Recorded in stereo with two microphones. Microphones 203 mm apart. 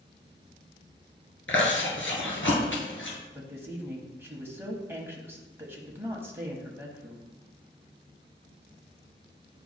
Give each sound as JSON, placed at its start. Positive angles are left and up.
{"t": 1.5, "sound": "chewing", "side_deg": 80, "distance_m": 1.6}
{"t": 3.3, "sound": "a woman speaking", "side_deg": -10, "distance_m": 1.2}